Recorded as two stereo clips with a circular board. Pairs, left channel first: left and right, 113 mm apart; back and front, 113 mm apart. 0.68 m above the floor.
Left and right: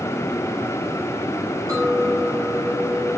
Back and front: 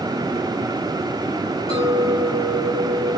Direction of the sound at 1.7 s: 150° right.